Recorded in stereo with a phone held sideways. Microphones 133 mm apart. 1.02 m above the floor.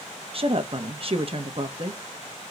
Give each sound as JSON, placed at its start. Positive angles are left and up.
{"t": 0.3, "sound": "a woman speaking", "side_deg": -45, "distance_m": 1.1}